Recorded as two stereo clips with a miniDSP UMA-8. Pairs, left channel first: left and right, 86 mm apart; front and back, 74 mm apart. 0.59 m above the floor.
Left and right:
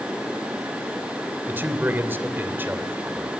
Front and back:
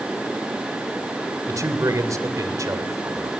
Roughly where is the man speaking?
Behind right.